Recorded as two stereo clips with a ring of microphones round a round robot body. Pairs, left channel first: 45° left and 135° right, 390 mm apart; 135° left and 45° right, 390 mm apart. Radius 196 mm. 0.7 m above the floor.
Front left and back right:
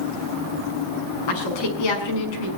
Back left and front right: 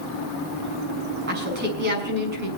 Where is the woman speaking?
20° left, 6.5 m.